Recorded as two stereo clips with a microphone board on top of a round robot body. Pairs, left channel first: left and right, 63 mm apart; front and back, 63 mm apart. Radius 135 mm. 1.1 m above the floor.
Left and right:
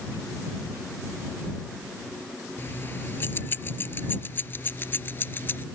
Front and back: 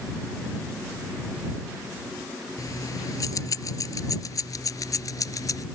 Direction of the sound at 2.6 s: 30° left.